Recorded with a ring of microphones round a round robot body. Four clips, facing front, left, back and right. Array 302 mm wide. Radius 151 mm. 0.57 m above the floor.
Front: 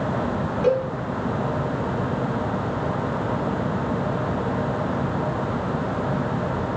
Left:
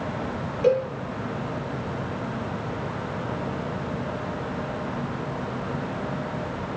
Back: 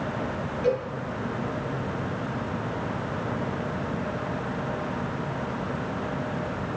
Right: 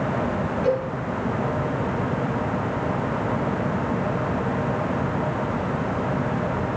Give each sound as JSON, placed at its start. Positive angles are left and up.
{"t": 0.6, "sound": "a cowbell", "azimuth_deg": 60, "distance_m": 6.5}